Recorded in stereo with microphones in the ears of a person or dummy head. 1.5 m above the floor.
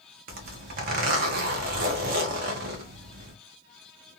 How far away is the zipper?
About 0.7 m.